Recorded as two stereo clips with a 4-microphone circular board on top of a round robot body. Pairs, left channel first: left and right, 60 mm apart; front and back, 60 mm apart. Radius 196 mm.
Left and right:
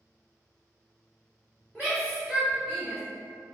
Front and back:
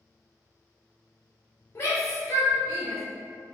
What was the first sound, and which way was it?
A shout, 25° right.